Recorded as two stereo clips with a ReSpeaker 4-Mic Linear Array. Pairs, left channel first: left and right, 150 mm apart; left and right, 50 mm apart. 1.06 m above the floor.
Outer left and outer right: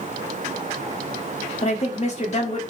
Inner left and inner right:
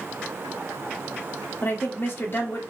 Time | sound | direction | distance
1.6 | a woman speaking | 50° left (ahead or behind) | 2 m